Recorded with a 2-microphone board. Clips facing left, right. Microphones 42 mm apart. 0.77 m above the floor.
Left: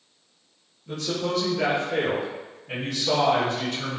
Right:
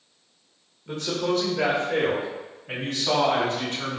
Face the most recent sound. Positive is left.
turn(degrees=-45)  # may be behind; listen again after turning